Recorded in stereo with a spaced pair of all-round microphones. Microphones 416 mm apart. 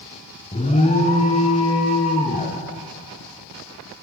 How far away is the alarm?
About 0.5 m.